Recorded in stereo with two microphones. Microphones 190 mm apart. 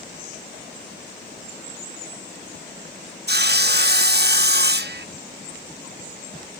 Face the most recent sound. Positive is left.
turn(degrees=-60)  # may be behind; listen again after turning